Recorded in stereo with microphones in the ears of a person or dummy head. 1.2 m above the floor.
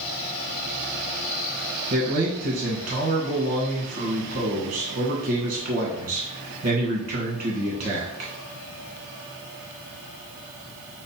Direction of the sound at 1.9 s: 45° right (ahead or behind).